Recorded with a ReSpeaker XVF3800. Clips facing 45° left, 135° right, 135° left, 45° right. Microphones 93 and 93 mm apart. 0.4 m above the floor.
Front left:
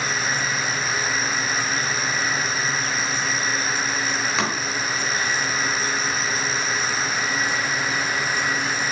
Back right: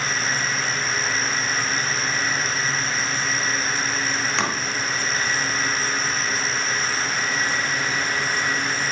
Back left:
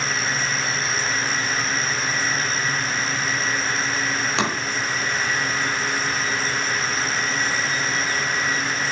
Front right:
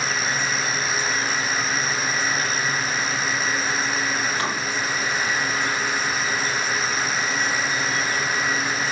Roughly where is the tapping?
Behind left.